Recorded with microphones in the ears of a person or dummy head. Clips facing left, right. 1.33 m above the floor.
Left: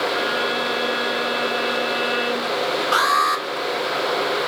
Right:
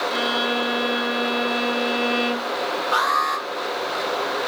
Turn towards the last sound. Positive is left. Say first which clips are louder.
# left 2 dB
turn(degrees=40)  # may be behind; listen again after turning